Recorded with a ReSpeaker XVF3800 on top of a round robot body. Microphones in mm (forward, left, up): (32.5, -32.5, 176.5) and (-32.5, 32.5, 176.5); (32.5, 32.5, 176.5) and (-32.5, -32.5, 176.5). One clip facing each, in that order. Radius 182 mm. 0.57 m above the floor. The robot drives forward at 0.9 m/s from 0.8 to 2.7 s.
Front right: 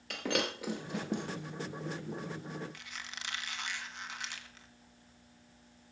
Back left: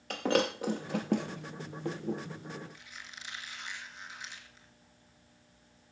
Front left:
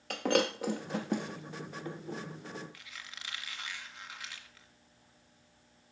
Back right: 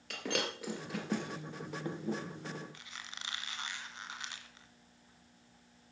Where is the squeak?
70° right, 1.9 m.